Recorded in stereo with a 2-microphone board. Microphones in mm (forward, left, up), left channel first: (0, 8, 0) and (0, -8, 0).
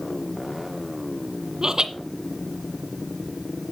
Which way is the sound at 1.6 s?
45° right (ahead or behind).